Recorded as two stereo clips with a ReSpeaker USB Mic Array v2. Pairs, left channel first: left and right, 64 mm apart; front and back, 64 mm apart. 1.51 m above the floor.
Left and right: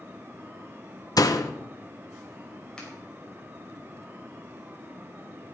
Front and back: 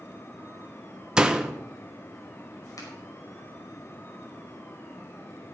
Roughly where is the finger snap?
Ahead.